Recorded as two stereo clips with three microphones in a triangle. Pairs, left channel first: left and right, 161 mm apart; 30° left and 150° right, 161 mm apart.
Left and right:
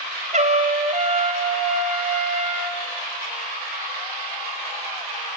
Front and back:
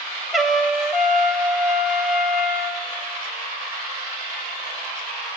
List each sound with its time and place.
0.3 s a trumpet: 60° right, 0.9 m